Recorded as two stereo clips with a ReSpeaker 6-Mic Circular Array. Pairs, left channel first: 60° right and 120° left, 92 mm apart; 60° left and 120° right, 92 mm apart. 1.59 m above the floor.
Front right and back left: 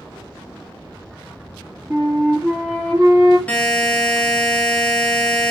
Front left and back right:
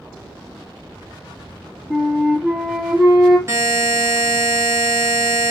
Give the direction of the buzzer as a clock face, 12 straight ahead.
4 o'clock.